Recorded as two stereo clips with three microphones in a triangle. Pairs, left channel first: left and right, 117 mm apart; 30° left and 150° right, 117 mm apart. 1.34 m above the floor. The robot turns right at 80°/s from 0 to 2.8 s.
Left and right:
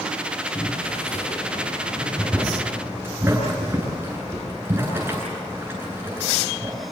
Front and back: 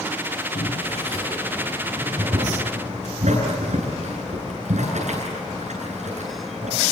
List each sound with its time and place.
0.6 s boiling: 20° left, 10 m; by 6.7 s 160° right, 10 m